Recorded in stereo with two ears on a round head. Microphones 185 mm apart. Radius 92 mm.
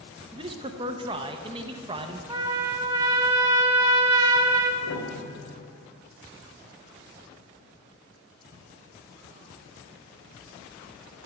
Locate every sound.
0.3 s a man speaking: 25° right (ahead or behind), 0.6 m
2.3 s a trumpet: 15° right (ahead or behind), 1.0 m
4.8 s a piano: 70° left (ahead or behind), 1.2 m